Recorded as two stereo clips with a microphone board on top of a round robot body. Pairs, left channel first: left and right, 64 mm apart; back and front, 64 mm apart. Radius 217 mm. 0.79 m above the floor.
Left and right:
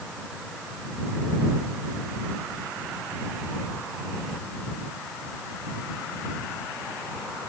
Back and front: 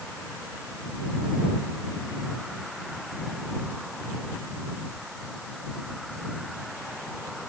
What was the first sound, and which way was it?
Only background noise.